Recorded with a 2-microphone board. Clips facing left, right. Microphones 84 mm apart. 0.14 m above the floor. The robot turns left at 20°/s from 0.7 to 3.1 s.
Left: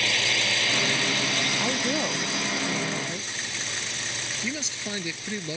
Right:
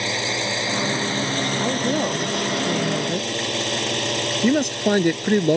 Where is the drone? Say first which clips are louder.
Right 3 dB; 30° right; by 5.6 s 75° right.